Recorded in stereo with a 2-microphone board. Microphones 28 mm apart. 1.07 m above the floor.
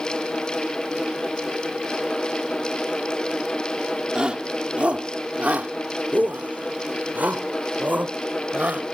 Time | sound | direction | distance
4.2 | a shout | 35° right (ahead or behind) | ?